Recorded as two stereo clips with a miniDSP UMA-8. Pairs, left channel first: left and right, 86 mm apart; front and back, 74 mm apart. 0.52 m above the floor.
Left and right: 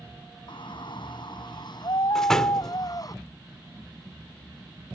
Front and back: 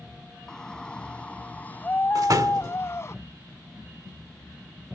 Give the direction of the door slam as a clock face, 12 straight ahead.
6 o'clock.